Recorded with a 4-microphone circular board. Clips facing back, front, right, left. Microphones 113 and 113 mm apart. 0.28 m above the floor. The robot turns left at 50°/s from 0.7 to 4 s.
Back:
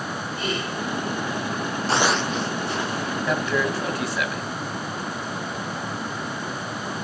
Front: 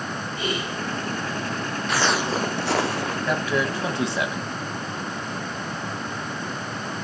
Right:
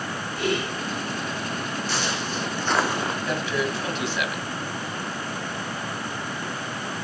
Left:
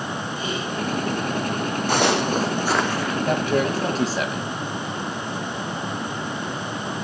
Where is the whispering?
70° right, 4 m.